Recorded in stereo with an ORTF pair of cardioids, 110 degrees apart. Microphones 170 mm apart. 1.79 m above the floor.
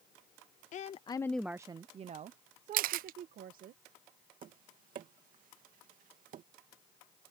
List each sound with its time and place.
0.7 s a woman speaking: 50° left; by 3.7 s 65° right
2.7 s a camera shutter: 65° right
4.4 s tapping: 60° right